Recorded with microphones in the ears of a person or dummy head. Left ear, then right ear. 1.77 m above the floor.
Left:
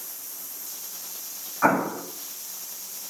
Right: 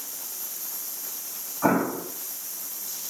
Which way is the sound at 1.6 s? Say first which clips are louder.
Left 2 dB; 65° left (ahead or behind).